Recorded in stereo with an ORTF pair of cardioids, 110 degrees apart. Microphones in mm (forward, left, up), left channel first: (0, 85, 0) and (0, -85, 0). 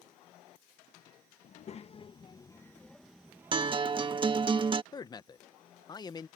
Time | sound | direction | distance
1.4 | a child speaking | 45° left | ?
3.5 | a guitar | 30° right | ?
4.9 | a man speaking | 25° left | ?